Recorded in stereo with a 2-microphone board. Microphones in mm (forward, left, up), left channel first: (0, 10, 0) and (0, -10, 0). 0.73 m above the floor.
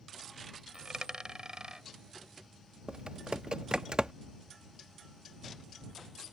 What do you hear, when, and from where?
0.7 s a dropped coin: 45° right (ahead or behind)
2.9 s typing on a keyboard: 50° right (ahead or behind)